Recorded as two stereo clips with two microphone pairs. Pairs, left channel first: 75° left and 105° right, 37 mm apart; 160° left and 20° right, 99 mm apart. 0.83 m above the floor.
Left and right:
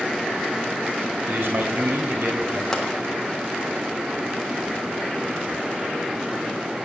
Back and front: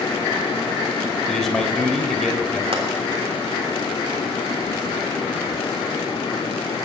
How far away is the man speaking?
About 3.5 m.